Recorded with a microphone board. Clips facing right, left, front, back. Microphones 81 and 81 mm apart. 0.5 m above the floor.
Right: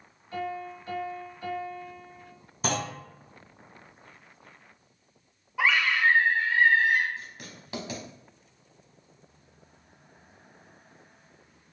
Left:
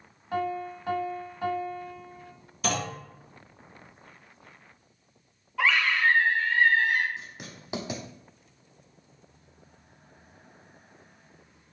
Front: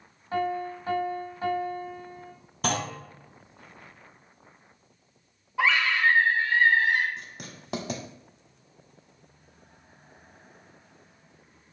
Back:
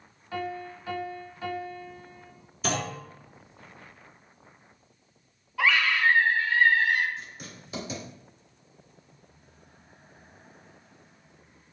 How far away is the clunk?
About 2.0 m.